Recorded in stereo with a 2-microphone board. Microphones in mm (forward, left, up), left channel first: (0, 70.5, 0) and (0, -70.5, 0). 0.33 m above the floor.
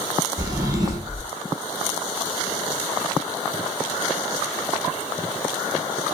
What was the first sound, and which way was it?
A drawer, 30° right (ahead or behind).